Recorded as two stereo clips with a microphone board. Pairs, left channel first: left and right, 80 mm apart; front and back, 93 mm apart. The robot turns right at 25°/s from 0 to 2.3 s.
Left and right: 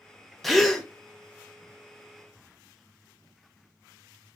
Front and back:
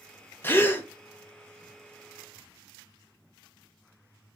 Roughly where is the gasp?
Ahead.